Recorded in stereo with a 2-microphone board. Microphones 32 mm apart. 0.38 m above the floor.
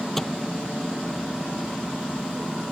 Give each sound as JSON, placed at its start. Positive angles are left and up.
{"t": 0.2, "sound": "a microwave", "side_deg": 5}